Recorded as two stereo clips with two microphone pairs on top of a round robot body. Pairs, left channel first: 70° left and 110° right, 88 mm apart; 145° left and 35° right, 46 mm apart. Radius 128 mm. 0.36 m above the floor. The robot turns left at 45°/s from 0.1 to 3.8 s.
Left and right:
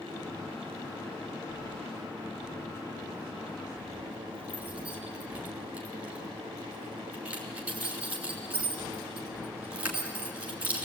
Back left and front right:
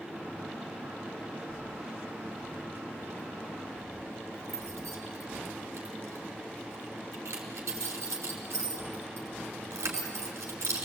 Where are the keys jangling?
65° left, 3.5 m; by 10.9 s 40° right, 3.5 m.